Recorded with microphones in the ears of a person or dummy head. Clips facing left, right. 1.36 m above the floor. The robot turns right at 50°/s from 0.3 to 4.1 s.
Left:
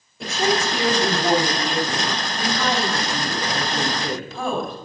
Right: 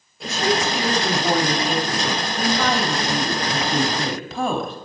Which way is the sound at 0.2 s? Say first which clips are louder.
Even; 110° left.